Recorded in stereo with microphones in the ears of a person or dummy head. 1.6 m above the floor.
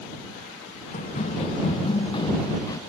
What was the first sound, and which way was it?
Running footsteps, 40° left (ahead or behind).